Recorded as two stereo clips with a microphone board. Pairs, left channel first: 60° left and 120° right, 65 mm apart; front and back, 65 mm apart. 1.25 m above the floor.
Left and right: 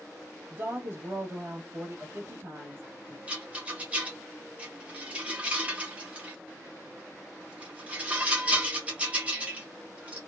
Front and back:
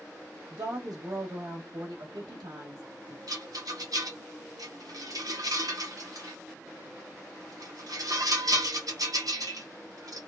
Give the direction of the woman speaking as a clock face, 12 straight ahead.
6 o'clock.